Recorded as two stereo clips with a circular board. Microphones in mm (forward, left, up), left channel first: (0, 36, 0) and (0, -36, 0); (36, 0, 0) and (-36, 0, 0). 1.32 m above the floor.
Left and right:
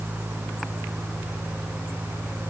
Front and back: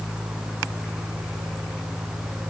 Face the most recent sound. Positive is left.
No sound to turn to.